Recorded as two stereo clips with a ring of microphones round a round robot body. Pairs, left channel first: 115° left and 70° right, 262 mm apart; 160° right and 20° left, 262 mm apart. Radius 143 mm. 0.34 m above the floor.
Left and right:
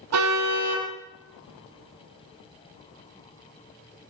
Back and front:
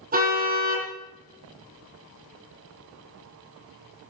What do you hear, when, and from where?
0.1 s a car horn: 35° right, 7.5 m